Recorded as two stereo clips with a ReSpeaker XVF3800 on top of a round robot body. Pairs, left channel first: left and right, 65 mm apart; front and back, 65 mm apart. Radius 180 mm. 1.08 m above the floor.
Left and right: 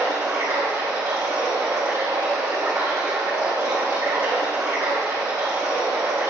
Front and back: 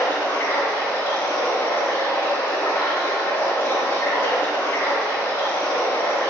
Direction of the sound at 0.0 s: 40° right.